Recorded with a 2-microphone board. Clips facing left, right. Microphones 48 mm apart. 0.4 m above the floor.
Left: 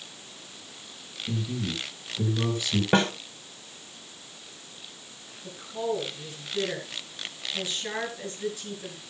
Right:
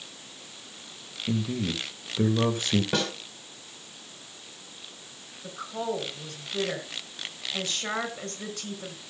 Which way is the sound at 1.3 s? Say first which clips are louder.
Right 3 dB; 50° right (ahead or behind).